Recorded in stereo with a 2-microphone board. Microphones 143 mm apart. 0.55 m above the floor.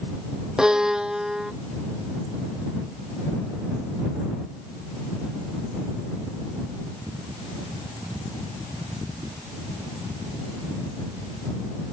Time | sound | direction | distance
0.6 | a violin | 5° right (ahead or behind) | ?